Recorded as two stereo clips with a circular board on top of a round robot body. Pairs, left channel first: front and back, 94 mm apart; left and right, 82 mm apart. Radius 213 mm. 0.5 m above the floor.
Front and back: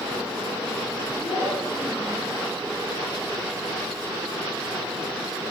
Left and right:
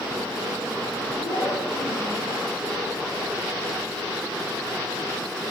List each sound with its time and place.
1.2 s a child speaking: 50° left, 7 m; by 2.4 s 55° left, 8.5 m